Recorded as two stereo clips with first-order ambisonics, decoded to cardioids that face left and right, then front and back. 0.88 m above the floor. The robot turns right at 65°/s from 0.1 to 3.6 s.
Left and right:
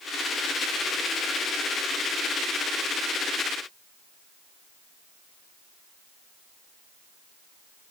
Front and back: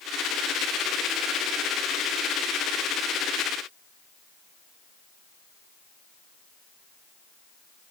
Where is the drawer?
No drawer in this recording.